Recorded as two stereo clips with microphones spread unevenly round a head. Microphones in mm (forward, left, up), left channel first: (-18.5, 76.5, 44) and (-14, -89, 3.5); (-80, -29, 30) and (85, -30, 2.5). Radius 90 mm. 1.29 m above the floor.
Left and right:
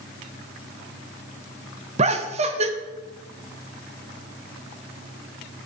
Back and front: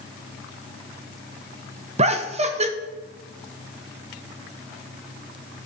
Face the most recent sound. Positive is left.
turn(degrees=-45)